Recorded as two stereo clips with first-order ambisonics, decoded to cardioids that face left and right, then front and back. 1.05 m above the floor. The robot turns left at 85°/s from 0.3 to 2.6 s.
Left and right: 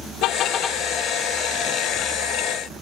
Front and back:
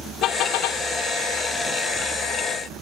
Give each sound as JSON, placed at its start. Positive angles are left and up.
{"t": 0.2, "sound": "a car horn", "azimuth_deg": 50}